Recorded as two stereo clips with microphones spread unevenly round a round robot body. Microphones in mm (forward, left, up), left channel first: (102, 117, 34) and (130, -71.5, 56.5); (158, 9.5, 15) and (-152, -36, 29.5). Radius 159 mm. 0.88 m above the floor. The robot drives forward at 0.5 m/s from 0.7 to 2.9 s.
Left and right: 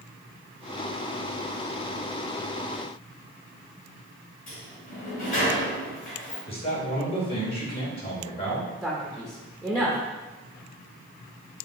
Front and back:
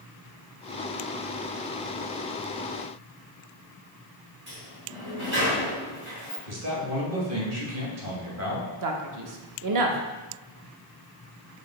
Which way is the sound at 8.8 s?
165° right.